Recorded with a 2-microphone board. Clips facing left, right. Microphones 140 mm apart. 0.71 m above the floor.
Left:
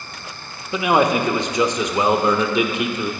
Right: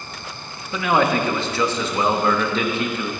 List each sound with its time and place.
0.7 s a man speaking: 15° left (ahead or behind), 0.7 m